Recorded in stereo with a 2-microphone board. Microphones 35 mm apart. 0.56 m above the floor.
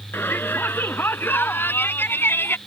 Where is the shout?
85° left; by 2.6 s 80° left.